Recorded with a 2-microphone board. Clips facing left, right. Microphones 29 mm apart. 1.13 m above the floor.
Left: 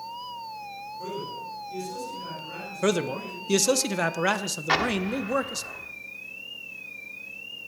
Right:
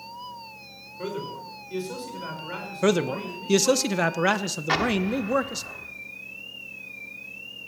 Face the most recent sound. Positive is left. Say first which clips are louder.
# right 1 dB
turn(degrees=10)  # may be behind; listen again after turning